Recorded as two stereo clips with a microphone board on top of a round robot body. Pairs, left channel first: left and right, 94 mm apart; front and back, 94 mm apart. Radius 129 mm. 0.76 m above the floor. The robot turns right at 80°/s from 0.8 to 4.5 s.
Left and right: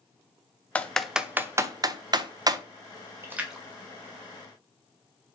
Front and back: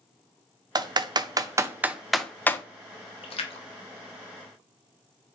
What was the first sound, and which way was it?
Typing on a keyboard, 160° left.